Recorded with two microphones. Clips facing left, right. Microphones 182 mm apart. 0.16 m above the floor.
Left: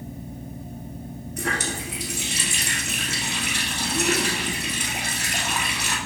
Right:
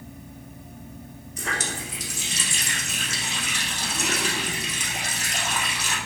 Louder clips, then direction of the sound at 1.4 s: Left 3 dB; 60° left (ahead or behind).